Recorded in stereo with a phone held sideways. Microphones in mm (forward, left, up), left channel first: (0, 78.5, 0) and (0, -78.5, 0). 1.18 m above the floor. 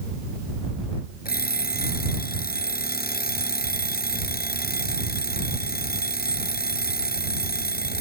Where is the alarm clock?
75° left (ahead or behind).